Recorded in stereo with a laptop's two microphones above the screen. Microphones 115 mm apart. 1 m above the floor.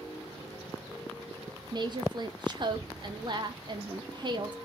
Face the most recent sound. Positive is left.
turn(degrees=-40)  # may be behind; listen again after turning